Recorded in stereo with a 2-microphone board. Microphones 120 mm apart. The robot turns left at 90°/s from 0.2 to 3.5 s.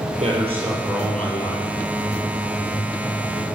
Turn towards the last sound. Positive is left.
turn(degrees=-40)